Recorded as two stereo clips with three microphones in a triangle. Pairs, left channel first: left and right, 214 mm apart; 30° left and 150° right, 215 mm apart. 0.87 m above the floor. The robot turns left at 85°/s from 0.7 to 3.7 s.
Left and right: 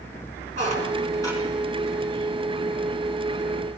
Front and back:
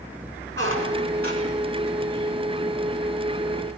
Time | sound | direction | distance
0.6 | a squeak | 145° right | 7.5 m